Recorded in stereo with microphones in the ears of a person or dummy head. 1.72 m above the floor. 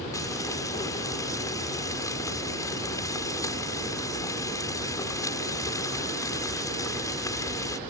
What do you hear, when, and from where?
0.1 s frying: 25° left (ahead or behind)